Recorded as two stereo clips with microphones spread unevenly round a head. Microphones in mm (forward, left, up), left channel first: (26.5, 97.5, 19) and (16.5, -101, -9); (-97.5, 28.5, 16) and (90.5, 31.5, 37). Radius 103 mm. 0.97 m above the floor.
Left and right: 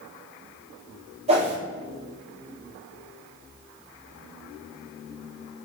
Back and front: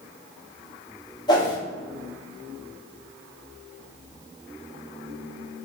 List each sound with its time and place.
1.3 s a whoosh: 125° right, 0.9 m